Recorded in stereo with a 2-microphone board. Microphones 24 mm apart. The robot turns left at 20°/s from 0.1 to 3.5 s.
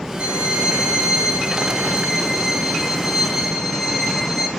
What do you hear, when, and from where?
0.2 s a violin: 85° right, 0.9 m; by 4.5 s 150° right, 0.9 m